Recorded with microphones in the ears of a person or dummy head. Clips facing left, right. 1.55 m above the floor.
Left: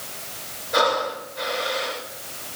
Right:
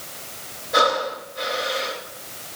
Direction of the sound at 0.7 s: Centre (ahead or behind).